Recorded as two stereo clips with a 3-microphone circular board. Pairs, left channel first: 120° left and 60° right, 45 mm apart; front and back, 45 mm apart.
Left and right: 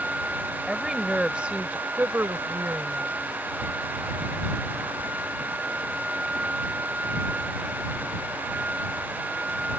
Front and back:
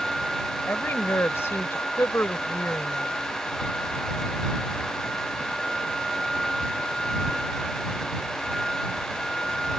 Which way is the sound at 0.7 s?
30° left.